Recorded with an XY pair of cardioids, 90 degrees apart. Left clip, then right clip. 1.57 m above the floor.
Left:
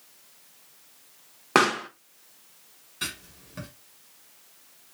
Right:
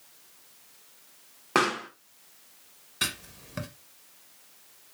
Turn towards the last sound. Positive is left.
turn(degrees=-55)